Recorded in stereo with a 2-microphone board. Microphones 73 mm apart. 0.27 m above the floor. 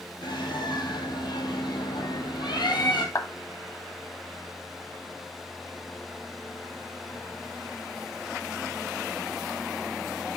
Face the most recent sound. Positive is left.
turn(degrees=50)  # may be behind; listen again after turning